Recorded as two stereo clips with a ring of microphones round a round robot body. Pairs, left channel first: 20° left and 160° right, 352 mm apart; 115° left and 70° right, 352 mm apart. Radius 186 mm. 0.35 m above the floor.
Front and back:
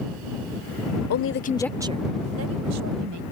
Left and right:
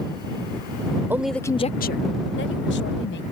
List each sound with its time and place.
1.1 s a woman speaking: 15° left; by 3.2 s 170° left